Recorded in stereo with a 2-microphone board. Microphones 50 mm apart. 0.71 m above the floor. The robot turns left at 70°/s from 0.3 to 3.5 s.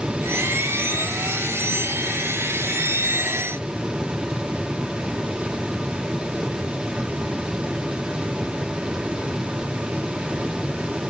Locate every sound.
Only background noise.